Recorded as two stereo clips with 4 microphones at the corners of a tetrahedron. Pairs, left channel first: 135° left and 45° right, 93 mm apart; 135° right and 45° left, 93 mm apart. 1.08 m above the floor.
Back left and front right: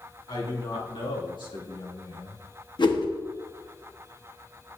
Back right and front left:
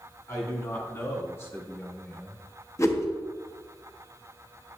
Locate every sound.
0.3 s a man speaking: 170° left, 3 m; by 2.5 s 140° left, 1.0 m
2.8 s a whoosh: 170° left, 1.0 m